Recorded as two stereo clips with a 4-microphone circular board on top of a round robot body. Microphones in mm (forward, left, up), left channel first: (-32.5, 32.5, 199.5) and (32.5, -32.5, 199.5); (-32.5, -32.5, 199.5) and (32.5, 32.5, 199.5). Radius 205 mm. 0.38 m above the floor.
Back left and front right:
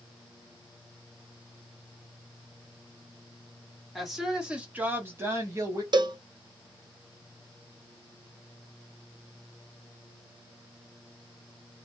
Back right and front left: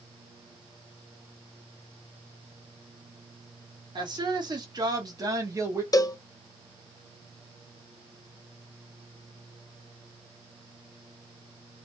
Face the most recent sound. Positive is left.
turn(degrees=-85)